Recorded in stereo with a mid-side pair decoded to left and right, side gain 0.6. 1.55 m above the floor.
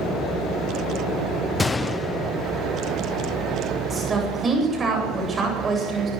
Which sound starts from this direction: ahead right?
A woman speaking, at 3.9 s.